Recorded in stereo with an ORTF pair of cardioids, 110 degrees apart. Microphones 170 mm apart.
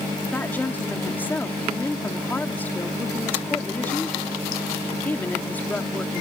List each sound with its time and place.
0.3 s a woman speaking: 10° left